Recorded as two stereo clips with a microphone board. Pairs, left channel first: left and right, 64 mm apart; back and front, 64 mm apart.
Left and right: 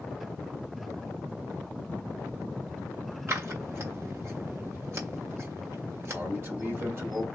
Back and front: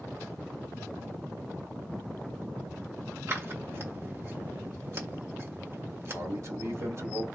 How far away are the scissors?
About 1.6 m.